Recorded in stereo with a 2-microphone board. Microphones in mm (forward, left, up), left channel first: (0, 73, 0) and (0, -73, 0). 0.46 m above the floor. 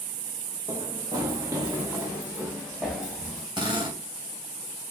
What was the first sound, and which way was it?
Running footsteps, 30° right (ahead or behind).